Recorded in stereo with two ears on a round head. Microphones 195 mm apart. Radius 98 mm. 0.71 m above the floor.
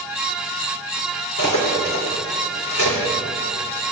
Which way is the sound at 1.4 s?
60° left (ahead or behind).